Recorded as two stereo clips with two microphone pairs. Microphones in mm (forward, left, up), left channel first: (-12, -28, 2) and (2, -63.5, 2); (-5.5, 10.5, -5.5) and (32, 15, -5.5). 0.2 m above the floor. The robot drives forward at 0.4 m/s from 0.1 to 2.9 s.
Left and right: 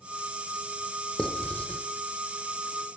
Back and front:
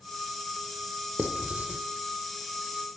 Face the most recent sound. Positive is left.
turn(degrees=95)